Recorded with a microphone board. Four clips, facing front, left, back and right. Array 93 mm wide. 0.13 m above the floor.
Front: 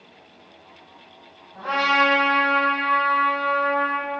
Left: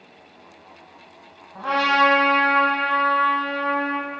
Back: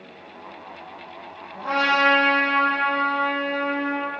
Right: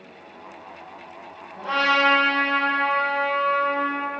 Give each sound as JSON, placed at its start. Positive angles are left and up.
{"t": 1.6, "sound": "a trumpet", "azimuth_deg": 105, "distance_m": 0.9}